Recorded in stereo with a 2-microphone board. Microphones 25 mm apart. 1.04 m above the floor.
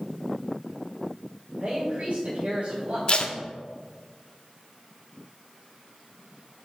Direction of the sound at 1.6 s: 75° right (ahead or behind).